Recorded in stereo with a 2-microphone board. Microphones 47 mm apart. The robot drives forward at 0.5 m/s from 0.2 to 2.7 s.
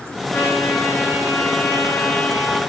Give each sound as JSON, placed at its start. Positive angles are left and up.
{"t": 0.3, "sound": "a trumpet", "side_deg": 75, "distance_m": 3.0}